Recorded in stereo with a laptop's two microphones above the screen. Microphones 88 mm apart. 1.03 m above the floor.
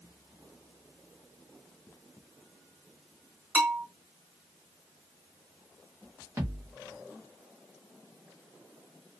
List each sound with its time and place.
3.5 s a bell: 20° right (ahead or behind), 1.3 m
6.4 s a thud: 30° right (ahead or behind), 0.8 m